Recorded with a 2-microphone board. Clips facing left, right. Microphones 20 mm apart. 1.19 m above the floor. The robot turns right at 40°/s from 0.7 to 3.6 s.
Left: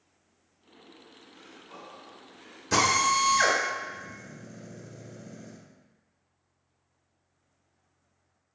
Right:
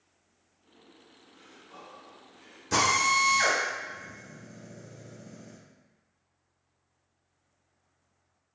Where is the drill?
10° left (ahead or behind), 1.0 m; by 5.6 s 35° left (ahead or behind), 1.0 m.